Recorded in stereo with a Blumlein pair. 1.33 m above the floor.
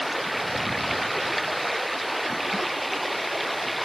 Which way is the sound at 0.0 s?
5° right.